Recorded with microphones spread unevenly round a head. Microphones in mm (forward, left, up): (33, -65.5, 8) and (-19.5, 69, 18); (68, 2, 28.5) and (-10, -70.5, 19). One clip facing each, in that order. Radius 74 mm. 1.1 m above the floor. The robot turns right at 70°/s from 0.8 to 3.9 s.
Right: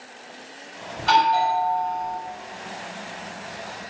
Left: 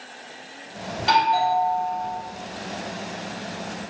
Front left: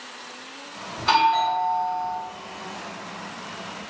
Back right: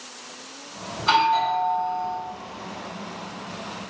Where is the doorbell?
140° left, 1.2 m; by 2.2 s 140° right, 1.2 m.